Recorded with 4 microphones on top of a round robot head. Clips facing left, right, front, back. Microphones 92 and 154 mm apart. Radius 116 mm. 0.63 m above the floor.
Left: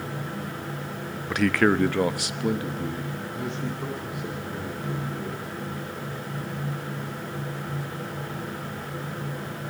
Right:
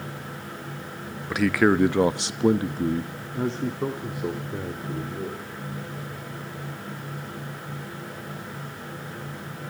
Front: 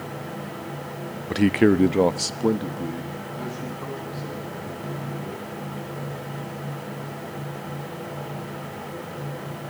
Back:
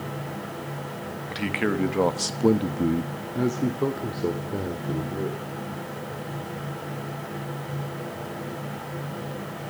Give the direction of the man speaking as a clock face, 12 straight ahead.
12 o'clock.